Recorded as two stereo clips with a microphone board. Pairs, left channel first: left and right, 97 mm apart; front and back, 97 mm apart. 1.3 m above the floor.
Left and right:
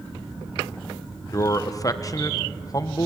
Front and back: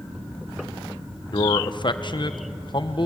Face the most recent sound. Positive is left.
turn(degrees=35)